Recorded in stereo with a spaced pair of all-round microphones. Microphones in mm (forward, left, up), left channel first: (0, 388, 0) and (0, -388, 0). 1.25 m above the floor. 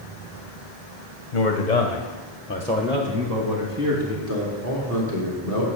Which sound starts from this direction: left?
A man speaking, at 1.3 s.